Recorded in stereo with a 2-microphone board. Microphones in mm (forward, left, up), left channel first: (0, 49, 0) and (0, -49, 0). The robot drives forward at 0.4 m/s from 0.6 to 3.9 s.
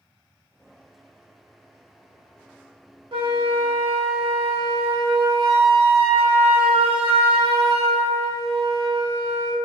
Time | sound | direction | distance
3.1 | a flute | 55° right (ahead or behind) | 0.9 m